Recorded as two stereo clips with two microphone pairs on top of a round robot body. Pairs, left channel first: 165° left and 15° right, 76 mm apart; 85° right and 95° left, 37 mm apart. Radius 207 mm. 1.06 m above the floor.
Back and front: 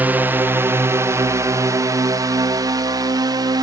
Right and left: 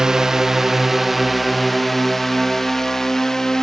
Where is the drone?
35° left; by 3.6 s 5° right.